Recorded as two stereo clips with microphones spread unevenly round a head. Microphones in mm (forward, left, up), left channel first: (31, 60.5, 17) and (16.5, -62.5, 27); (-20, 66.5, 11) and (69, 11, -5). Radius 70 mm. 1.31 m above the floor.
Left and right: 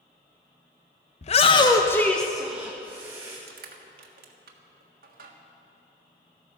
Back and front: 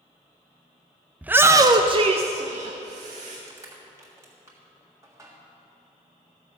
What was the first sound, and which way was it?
A shout, 45° left.